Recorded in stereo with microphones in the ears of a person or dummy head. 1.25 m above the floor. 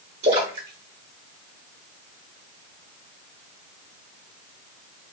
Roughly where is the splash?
Right.